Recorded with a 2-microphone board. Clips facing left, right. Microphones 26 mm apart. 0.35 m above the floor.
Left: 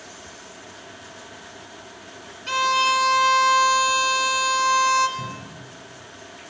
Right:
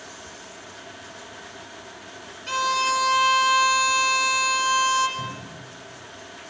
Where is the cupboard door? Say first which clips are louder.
Even; 15° left (ahead or behind), 1.1 m.